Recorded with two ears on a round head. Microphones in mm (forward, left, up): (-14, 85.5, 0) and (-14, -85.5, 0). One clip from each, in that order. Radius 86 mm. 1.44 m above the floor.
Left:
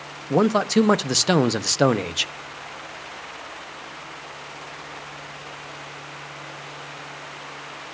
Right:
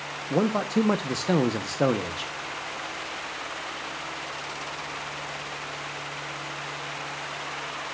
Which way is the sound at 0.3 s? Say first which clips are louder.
Left 6 dB; 55° left (ahead or behind).